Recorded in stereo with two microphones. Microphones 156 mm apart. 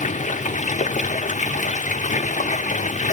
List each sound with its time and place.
0.0 s running water: 55° left (ahead or behind), 1.0 m